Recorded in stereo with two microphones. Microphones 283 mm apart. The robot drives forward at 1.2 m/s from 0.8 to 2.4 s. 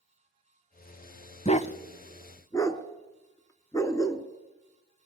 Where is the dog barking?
25° left (ahead or behind), 0.5 m; by 4.2 s 10° left (ahead or behind), 1.1 m.